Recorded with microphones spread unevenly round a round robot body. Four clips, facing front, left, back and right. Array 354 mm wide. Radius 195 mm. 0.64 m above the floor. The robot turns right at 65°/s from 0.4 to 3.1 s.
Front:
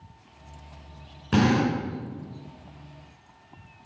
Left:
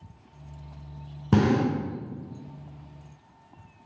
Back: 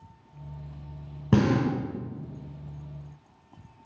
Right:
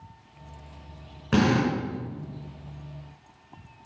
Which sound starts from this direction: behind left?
A drill, at 1.3 s.